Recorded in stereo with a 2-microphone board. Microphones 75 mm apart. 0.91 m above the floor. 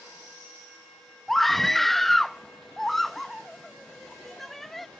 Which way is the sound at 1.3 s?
Centre (ahead or behind).